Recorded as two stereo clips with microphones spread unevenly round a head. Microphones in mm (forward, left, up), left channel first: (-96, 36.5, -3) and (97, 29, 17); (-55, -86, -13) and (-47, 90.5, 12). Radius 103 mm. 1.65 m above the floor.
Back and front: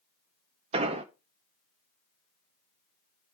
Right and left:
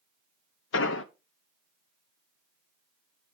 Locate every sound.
0.7 s an explosion: 60° right, 0.7 m